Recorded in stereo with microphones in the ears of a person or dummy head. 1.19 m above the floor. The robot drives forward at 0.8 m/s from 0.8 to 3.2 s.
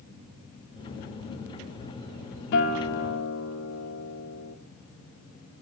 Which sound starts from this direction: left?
A guitar, at 2.5 s.